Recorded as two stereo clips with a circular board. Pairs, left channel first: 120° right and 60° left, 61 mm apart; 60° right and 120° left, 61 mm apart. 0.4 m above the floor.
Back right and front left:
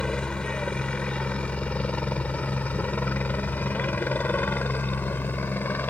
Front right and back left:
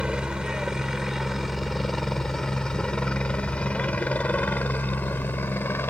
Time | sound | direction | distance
0.0 | a helicopter | 175° left | ?